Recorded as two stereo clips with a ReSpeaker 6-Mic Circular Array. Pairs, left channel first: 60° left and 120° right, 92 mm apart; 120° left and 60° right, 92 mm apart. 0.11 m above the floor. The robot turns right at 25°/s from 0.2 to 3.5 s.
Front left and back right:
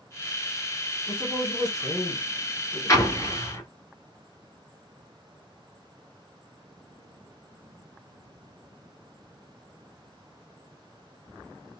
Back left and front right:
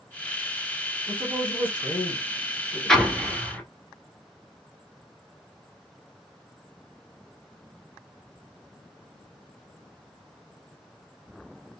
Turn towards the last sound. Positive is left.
turn(degrees=50)